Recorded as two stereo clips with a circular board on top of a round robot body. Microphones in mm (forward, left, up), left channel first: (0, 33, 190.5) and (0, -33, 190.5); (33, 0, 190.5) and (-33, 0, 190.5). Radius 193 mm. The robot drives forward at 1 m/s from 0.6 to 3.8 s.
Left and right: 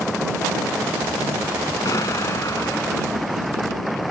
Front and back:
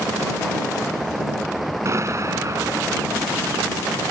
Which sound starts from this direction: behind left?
An explosion, at 1.9 s.